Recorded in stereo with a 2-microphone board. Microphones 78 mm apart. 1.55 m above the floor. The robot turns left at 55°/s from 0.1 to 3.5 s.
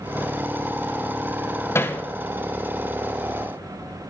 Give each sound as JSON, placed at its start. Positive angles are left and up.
{"t": 1.8, "sound": "hammering", "side_deg": 30, "distance_m": 0.7}